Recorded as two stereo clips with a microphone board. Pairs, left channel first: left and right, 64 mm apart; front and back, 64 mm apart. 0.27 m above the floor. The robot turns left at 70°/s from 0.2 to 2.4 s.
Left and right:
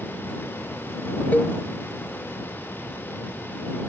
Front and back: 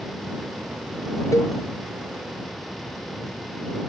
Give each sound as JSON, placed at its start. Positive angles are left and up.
{"t": 1.3, "sound": "a cowbell", "azimuth_deg": 30}